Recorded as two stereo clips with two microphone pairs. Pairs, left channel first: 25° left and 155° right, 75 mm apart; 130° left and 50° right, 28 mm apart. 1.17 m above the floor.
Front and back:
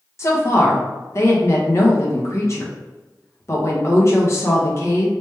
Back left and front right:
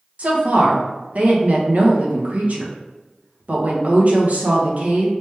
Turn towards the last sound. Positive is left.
turn(degrees=-25)